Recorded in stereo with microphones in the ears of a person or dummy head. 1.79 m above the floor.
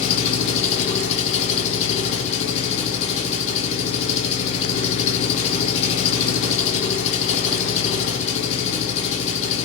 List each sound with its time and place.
0.0 s an engine running: 40° left (ahead or behind), 1.0 m